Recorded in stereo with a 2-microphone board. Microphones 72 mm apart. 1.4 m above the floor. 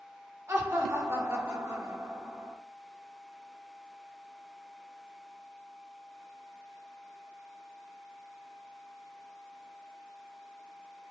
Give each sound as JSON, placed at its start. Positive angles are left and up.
{"t": 0.5, "sound": "laughter", "side_deg": -40, "distance_m": 1.2}